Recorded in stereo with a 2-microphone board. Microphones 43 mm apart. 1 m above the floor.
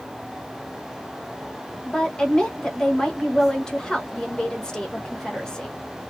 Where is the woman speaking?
20° left (ahead or behind), 0.9 m.